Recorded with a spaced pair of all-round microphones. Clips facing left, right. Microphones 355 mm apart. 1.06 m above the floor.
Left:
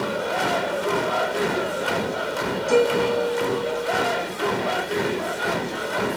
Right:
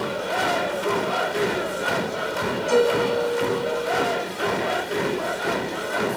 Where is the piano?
75° left (ahead or behind), 1.7 m.